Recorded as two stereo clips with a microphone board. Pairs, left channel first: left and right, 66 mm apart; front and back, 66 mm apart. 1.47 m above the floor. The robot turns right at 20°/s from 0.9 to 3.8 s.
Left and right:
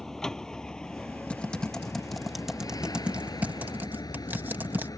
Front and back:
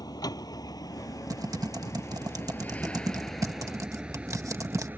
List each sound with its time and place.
0.0 s a vehicle: 5° left; by 5.0 s 120° left
1.3 s typing on a keyboard: 160° left; by 4.9 s 150° right